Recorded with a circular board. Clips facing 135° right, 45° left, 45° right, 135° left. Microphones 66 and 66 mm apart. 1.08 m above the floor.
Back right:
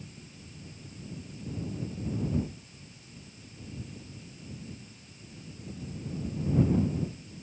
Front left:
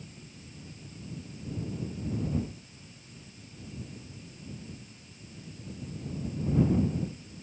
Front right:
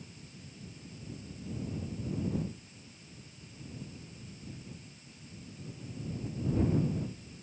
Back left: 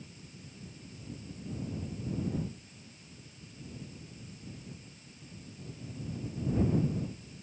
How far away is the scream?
No scream in this recording.